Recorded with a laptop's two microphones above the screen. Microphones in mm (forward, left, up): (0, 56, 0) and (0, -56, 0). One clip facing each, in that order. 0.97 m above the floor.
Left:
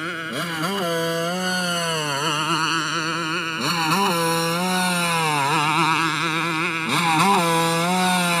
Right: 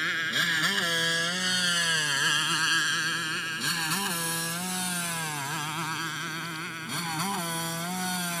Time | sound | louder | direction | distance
0.0 | a motorcycle | left 4 dB | 40° left (ahead or behind) | ?